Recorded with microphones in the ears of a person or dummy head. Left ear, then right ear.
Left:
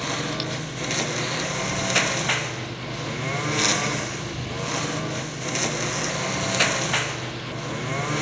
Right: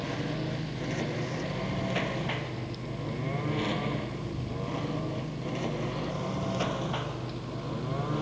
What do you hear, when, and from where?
0.0 s a lawn mower: 50° left (ahead or behind); by 8.2 s 70° left (ahead or behind)